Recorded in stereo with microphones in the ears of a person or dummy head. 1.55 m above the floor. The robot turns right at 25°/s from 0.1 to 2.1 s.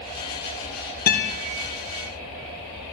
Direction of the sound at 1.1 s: 50° left (ahead or behind).